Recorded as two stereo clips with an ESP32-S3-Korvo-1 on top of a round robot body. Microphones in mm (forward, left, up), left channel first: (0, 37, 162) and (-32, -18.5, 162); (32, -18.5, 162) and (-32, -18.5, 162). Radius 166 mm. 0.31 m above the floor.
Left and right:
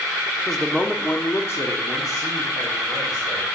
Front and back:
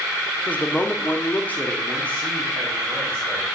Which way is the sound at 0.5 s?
30° right.